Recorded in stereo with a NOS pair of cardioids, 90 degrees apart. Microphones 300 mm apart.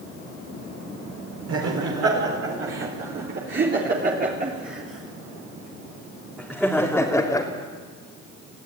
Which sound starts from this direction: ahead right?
Laughter, at 1.5 s.